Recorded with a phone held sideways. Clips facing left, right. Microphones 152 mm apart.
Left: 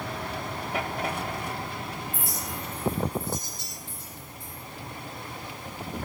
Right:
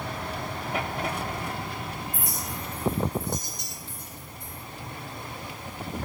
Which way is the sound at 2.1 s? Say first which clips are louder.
Even; 15° right (ahead or behind).